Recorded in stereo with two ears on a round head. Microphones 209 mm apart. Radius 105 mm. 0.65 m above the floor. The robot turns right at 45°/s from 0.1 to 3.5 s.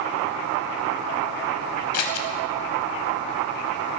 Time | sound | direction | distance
1.9 | scissors | 75° left (ahead or behind) | 1.0 m